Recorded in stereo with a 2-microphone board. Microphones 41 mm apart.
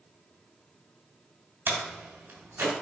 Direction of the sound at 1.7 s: 70° right (ahead or behind).